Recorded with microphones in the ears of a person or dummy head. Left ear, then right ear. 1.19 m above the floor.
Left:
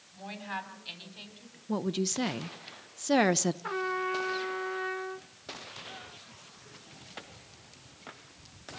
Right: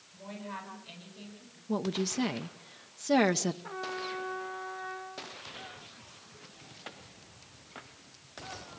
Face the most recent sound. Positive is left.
turn(degrees=50)  # may be behind; listen again after turning